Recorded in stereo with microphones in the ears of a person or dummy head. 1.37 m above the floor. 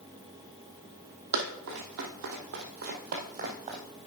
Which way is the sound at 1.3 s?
50° right (ahead or behind).